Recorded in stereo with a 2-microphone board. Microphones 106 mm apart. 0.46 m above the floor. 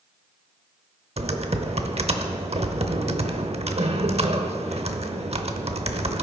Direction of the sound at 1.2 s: 70° right (ahead or behind).